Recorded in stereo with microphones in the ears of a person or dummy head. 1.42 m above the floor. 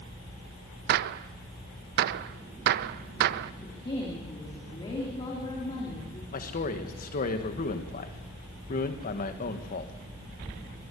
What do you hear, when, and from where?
0.9 s a gunshot: 65° right (ahead or behind), 0.5 m
3.6 s a woman speaking: 30° left (ahead or behind), 3 m
6.3 s a man speaking: 45° left (ahead or behind), 1.7 m